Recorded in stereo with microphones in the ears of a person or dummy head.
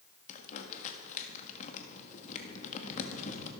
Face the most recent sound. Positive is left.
turn(degrees=45)  # may be behind; listen again after turning